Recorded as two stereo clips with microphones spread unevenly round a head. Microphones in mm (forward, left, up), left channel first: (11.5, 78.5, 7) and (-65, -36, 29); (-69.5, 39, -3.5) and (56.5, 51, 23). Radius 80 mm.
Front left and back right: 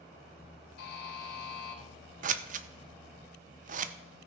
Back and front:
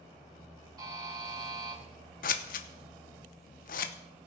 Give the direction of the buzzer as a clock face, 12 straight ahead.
10 o'clock.